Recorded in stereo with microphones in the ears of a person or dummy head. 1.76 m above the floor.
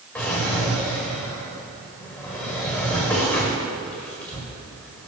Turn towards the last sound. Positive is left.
turn(degrees=5)  # may be behind; listen again after turning